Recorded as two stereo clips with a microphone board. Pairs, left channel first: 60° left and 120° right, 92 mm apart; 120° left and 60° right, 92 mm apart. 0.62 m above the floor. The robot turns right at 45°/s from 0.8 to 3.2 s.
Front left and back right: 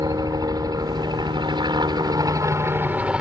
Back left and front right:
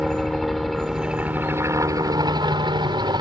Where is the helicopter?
150° right; by 3.2 s 45° right.